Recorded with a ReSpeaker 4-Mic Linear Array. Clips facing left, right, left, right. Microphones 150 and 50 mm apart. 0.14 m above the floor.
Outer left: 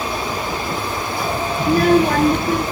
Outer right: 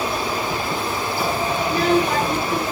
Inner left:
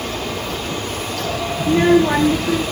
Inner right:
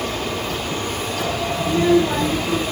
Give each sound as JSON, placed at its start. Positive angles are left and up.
{"t": 1.6, "sound": "a child speaking", "side_deg": 45, "distance_m": 0.9}